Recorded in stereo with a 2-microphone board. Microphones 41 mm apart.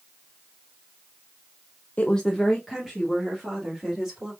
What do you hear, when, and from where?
2.0 s a woman speaking: 35° left (ahead or behind), 0.5 m; by 4.3 s 25° right (ahead or behind), 3.5 m